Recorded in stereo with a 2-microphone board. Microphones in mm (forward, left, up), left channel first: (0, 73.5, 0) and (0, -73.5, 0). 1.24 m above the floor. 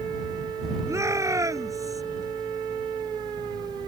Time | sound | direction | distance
0.9 | a shout | 20° right (ahead or behind) | ?